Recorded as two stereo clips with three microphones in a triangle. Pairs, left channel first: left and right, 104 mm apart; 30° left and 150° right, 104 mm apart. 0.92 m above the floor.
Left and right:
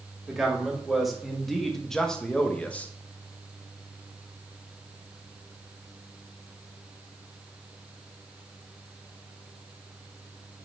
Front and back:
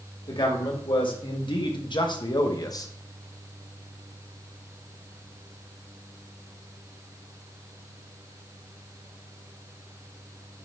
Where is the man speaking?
5° right, 2.5 m; by 2.9 s 30° left, 1.0 m.